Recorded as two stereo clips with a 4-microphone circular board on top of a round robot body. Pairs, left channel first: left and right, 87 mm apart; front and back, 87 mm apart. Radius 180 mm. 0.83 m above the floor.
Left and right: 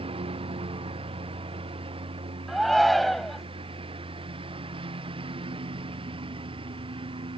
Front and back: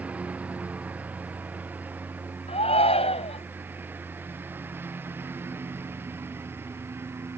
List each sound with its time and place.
0.0 s a lawn mower: 105° right; by 7.4 s 115° right
2.5 s a shout: straight ahead